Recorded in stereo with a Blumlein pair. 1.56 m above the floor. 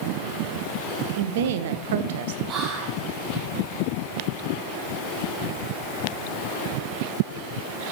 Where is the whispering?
30° right, 0.9 m.